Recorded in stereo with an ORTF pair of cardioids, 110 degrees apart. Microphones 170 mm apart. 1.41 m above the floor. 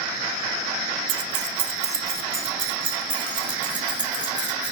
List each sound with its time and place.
1.1 s keys jangling: 60° right, 0.9 m; by 4.7 s 25° right, 4 m